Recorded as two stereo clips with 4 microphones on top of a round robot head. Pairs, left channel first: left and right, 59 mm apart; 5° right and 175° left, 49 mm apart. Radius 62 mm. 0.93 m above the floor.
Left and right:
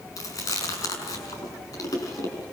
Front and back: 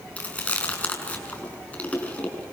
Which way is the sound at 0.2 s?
55° left.